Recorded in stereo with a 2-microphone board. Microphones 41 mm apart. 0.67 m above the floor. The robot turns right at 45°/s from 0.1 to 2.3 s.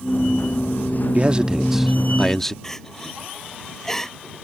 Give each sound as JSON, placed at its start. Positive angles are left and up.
{"t": 1.1, "sound": "a man speaking", "azimuth_deg": -40}
{"t": 2.6, "sound": "crying", "side_deg": 10}